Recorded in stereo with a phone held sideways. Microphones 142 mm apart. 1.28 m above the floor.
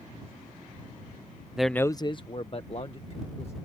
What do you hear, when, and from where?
1.6 s a man speaking: 5° right (ahead or behind); by 3.5 s 40° left (ahead or behind)